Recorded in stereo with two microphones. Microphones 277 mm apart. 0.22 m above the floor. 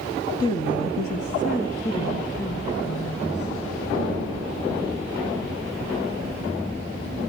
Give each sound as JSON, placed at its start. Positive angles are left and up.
{"t": 0.4, "sound": "a woman speaking", "side_deg": 15, "distance_m": 1.0}